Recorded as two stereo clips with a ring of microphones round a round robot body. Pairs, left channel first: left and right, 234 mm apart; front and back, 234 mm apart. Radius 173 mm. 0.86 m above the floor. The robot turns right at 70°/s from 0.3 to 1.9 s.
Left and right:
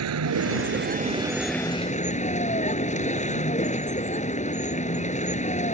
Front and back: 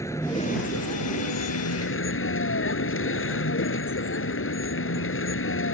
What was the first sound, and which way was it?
A vehicle, 80° right.